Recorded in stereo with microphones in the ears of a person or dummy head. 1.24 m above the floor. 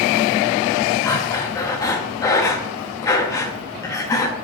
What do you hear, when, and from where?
1.0 s breathing: 20° left (ahead or behind), 0.9 m